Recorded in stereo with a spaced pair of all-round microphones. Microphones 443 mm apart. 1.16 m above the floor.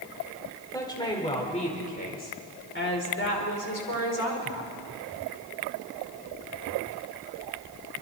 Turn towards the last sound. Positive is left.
turn(degrees=40)  # may be behind; listen again after turning